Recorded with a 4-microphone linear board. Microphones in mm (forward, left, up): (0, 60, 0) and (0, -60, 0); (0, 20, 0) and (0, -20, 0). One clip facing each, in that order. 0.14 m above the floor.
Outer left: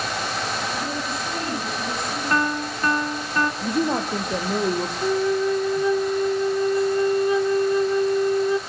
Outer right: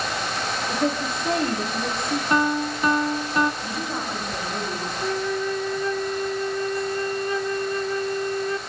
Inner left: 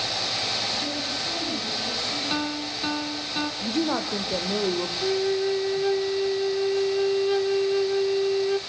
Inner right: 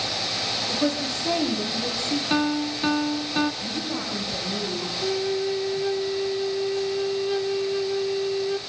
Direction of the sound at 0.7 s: 55° right (ahead or behind).